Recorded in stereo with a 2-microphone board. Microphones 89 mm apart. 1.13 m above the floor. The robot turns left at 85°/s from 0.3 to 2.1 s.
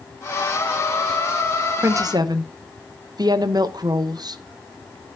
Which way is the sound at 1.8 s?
20° right (ahead or behind).